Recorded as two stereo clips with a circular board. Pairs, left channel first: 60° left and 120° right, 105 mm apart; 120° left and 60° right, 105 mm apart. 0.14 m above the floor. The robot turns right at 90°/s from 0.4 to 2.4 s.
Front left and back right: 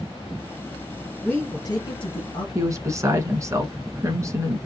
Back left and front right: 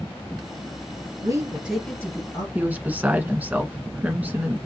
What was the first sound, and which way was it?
A woman speaking, 25° right.